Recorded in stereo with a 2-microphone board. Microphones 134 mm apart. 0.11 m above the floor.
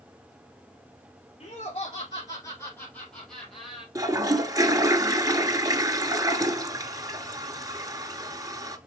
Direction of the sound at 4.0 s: 25° right (ahead or behind).